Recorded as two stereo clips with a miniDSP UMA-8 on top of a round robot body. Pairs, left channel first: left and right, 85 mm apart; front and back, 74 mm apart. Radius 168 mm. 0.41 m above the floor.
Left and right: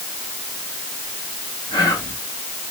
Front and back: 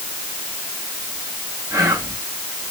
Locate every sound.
1.7 s whispering: 125° left, 4.5 m